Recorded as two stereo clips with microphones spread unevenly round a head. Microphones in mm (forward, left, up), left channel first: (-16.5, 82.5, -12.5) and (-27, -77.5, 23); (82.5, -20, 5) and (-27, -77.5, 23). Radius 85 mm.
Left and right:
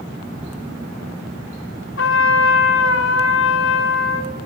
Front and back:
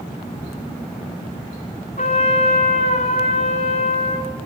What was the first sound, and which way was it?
A trumpet, 80° left.